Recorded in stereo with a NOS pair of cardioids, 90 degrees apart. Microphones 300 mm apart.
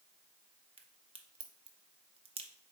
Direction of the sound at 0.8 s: 20° right.